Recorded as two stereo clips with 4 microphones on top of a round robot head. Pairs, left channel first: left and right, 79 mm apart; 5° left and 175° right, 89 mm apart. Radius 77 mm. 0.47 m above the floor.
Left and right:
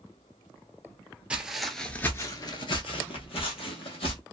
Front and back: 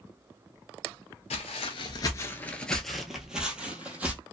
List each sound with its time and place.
1.3 s footsteps: 15° right, 0.7 m; by 4.2 s 110° left, 1.3 m